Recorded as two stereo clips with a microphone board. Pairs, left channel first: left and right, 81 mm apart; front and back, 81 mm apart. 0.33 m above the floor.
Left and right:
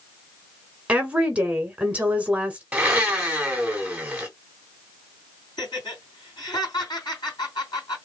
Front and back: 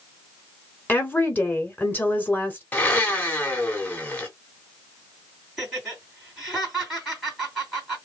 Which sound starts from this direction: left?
Laughter, at 5.6 s.